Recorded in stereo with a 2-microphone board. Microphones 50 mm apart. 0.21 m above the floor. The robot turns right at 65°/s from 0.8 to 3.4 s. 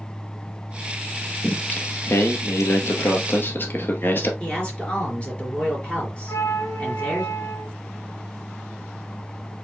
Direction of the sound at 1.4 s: 10° left.